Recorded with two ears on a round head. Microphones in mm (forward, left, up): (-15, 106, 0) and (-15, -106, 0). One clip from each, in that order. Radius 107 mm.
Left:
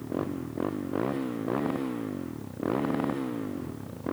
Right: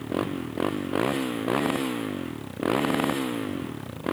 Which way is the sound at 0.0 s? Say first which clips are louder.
Right 4 dB; 85° right.